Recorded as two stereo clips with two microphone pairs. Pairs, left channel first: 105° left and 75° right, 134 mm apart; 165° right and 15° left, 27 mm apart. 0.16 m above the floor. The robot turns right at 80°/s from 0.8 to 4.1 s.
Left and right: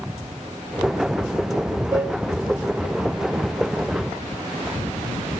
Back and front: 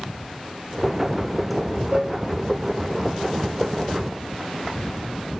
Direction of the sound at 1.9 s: 10° right.